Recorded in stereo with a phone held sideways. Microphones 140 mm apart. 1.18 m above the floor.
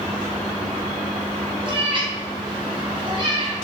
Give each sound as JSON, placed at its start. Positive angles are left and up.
{"t": 1.6, "sound": "a cat meowing", "side_deg": -35, "distance_m": 0.7}